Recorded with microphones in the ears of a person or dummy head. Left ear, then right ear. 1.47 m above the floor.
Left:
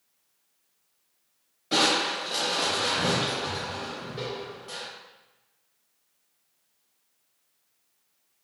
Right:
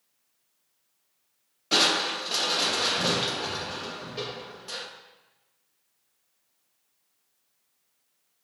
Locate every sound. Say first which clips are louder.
1.7 s crushing: even; 25° right (ahead or behind), 1.3 m